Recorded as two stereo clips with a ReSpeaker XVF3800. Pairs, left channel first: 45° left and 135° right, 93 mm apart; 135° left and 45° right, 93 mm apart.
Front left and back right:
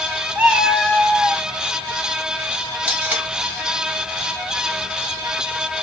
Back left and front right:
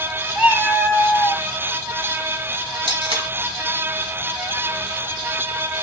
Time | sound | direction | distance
0.3 | a cat meowing | 80° right | 0.8 m
2.9 | tape being pulled | 60° right | 1.6 m